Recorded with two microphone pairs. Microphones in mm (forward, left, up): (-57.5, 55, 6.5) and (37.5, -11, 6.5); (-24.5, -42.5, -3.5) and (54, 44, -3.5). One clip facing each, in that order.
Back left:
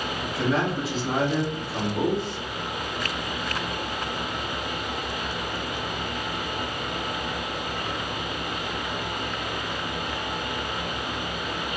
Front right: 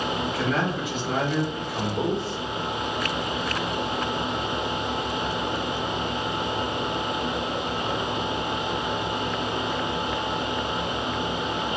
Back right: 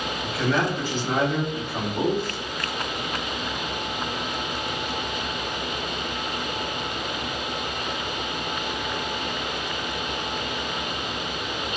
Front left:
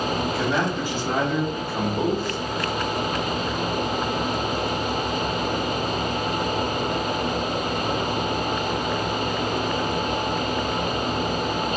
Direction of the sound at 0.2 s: 90° left.